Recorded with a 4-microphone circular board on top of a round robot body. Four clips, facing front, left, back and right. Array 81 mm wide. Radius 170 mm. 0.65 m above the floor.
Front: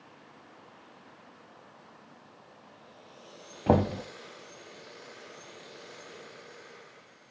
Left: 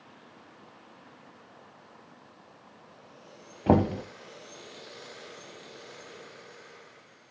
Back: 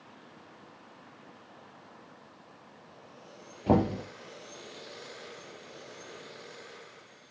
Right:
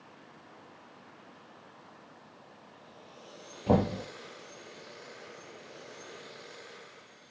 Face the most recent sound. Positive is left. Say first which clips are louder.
# left 3 dB, front 1 dB
turn(degrees=50)